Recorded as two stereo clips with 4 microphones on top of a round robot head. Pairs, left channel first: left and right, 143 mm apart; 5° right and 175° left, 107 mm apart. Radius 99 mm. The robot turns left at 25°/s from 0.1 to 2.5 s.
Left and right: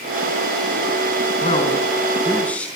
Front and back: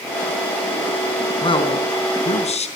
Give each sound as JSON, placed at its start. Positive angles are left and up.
{"t": 1.4, "sound": "a man speaking", "azimuth_deg": 35, "distance_m": 4.5}